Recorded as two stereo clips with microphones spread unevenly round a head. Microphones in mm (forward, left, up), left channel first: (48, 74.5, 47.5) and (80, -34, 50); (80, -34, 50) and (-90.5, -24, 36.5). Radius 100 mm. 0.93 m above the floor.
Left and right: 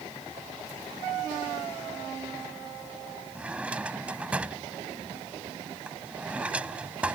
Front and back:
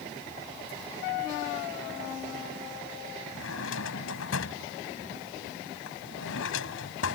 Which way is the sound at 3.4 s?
5° left.